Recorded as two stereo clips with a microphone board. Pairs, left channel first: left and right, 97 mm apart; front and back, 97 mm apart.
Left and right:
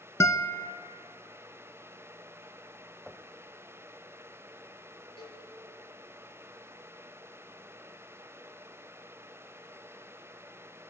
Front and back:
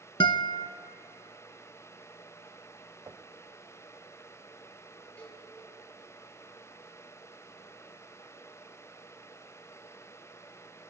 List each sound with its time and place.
0.2 s a guitar: 30° left, 0.7 m
3.1 s knocking: 170° right, 0.8 m
5.2 s a cowbell: 75° left, 6 m